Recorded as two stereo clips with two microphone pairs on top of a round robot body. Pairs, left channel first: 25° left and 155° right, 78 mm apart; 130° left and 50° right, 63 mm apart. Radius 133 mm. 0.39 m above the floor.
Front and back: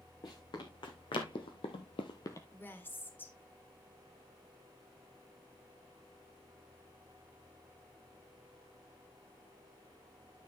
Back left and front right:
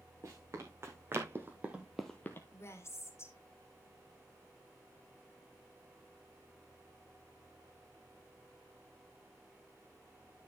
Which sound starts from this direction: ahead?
Running footsteps, at 0.2 s.